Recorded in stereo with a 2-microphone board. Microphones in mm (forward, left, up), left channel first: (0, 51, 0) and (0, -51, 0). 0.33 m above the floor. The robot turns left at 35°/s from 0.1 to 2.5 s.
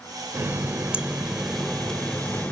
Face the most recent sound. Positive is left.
turn(degrees=150)